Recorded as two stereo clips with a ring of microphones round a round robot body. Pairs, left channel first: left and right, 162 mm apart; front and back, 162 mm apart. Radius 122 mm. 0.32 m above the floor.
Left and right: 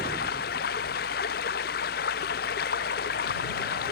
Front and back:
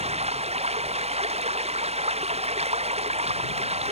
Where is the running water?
135° left.